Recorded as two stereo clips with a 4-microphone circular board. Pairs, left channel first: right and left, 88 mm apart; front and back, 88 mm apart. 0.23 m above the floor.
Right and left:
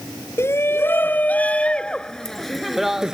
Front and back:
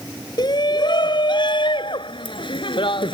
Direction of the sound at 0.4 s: 30° right.